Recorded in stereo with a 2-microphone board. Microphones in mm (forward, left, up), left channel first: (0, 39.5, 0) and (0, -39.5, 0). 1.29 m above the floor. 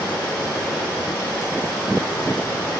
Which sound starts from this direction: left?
Running water, at 0.0 s.